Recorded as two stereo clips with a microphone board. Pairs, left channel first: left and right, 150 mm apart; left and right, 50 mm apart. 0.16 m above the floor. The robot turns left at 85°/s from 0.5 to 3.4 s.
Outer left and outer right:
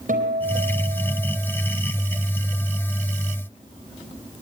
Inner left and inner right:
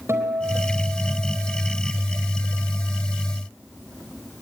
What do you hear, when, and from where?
0.1 s a guitar: 105° right, 4.5 m; by 1.8 s 145° left, 4.5 m